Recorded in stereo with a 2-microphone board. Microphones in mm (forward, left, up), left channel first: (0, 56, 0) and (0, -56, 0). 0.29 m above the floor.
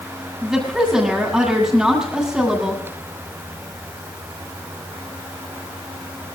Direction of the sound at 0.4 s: 5° right (ahead or behind).